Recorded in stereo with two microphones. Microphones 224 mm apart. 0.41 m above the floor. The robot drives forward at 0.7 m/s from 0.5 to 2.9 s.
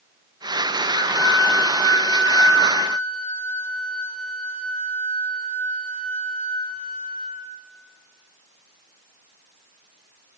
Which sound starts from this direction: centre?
A flute, at 0.9 s.